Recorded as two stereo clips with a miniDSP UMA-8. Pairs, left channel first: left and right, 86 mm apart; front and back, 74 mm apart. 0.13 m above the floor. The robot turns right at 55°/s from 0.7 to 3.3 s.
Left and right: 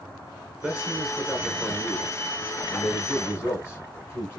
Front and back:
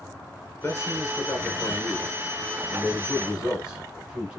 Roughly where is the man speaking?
Ahead right.